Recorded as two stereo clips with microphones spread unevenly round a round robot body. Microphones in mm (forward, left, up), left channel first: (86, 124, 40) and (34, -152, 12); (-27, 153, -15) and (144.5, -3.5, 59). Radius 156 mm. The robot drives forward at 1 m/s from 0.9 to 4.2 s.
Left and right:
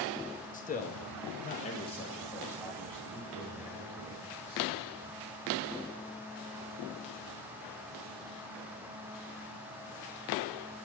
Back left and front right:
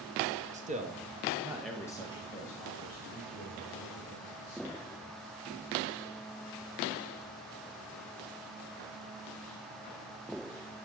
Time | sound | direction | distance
0.5 | a man speaking | 25° left | 1.1 m